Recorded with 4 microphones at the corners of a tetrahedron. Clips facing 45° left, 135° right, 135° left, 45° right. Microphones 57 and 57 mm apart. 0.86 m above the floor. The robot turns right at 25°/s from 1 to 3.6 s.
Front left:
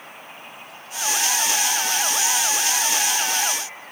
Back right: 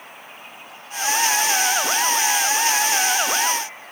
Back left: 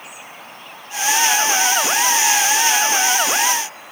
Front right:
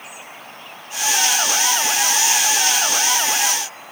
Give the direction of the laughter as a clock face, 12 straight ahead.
No laughter in this recording.